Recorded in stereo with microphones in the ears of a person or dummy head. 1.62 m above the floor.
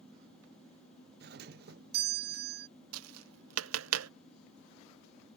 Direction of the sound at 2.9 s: 85° right.